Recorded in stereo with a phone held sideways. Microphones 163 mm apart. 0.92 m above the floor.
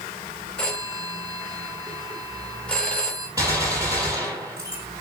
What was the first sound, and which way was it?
A phone ringing, 5° left (ahead or behind).